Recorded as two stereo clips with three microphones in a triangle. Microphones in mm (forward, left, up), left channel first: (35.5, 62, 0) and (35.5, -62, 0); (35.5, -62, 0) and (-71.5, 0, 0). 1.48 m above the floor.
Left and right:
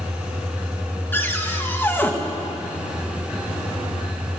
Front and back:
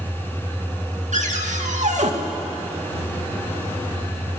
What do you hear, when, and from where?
1.1 s a cupboard door: 165° left, 2.5 m